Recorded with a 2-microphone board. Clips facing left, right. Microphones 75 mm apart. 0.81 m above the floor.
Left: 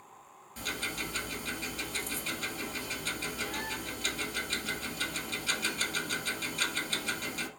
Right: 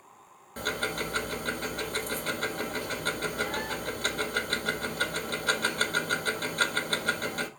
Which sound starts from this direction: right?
Ticking, at 0.6 s.